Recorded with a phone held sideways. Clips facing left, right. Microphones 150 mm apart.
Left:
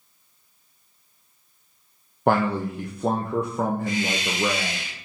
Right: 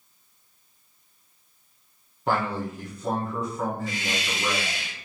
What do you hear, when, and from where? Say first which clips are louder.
2.3 s a man speaking: left 5 dB; 60° left (ahead or behind), 0.6 m
3.9 s a hiss: left 5 dB; 60° left (ahead or behind), 1.9 m